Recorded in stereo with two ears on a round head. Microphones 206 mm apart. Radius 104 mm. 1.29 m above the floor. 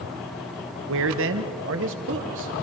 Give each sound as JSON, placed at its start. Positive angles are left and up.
{"t": 0.9, "sound": "a man speaking", "side_deg": -55, "distance_m": 1.2}